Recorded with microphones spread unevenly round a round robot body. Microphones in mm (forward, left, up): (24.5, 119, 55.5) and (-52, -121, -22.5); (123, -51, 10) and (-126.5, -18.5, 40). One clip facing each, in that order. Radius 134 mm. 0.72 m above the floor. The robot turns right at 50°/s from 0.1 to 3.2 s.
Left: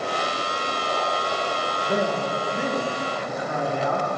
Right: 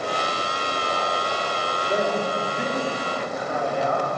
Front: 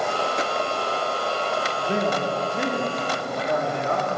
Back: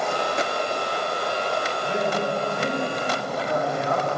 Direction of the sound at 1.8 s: 20° right.